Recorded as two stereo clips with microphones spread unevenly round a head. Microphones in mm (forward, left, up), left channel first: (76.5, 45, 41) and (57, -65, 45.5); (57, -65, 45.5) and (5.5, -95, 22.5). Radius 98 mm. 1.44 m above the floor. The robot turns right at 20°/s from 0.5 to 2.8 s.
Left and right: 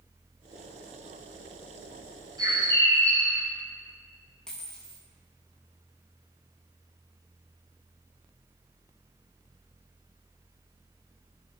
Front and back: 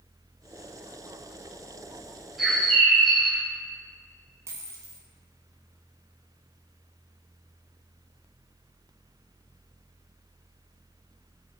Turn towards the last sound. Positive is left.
turn(degrees=165)